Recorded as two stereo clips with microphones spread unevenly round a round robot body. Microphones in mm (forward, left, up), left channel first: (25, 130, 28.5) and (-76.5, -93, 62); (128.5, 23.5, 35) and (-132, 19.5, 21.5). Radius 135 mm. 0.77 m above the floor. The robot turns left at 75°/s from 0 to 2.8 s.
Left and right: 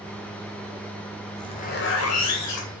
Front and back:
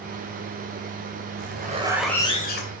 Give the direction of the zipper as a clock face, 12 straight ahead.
7 o'clock.